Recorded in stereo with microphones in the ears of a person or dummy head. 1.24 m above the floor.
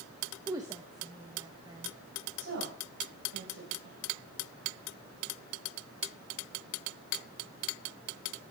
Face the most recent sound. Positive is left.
turn(degrees=-75)  # may be behind; listen again after turning